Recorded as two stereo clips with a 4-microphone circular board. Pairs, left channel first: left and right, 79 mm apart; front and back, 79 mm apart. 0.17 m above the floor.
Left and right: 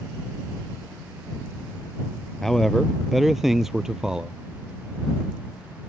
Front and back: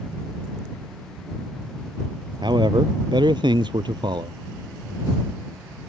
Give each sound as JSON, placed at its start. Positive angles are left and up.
{"t": 2.4, "sound": "a man speaking", "azimuth_deg": 175}